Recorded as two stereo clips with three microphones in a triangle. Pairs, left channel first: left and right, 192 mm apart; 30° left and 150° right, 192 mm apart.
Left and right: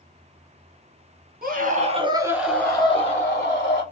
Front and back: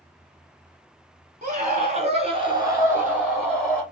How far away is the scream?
About 1.7 m.